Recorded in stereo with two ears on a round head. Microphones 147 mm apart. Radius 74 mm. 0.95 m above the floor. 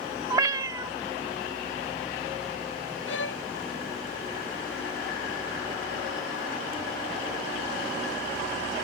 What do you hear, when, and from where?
0.3 s a cat meowing: 20° right (ahead or behind)
3.1 s a violin: 85° left